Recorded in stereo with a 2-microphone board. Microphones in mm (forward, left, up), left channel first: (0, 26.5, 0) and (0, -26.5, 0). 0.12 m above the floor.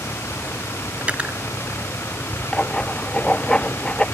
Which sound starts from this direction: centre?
Writing, at 2.5 s.